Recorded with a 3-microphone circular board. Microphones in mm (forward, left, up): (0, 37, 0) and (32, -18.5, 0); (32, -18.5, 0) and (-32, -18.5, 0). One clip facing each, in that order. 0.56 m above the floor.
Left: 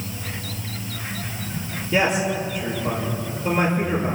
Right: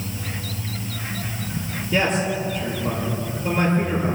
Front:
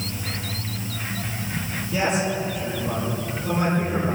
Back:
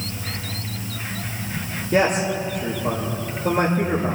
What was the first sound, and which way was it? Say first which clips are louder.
A man speaking: left 1 dB, back 4 dB; 155° right.